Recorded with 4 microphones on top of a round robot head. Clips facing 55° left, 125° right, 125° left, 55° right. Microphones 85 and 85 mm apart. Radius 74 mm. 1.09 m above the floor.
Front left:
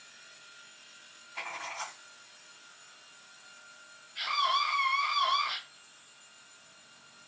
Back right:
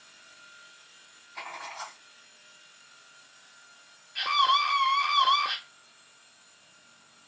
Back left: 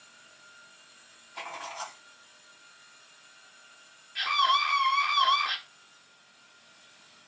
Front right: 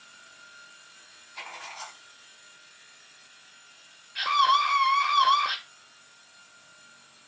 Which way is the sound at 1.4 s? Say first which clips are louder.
Even, back left 3 dB; 155° left.